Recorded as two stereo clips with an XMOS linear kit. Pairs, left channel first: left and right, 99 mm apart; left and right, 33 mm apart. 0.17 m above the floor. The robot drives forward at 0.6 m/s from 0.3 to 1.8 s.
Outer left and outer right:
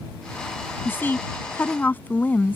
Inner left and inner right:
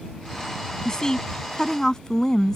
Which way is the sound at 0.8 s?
20° left (ahead or behind).